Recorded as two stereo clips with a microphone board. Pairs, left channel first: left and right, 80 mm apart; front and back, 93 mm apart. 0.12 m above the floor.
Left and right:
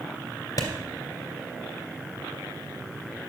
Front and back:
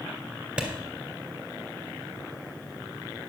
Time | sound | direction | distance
0.6 | a clap | 105° left | 2 m